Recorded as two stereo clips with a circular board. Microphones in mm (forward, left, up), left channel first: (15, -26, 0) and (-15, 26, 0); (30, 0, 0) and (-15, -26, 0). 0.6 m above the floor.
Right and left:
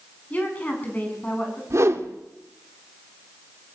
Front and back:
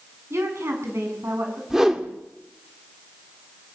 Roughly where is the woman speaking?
Behind right.